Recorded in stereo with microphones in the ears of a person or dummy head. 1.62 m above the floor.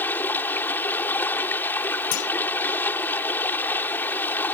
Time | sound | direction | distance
0.0 | running water | 15° left (ahead or behind) | ?
2.1 | a clunk | 75° left (ahead or behind) | ?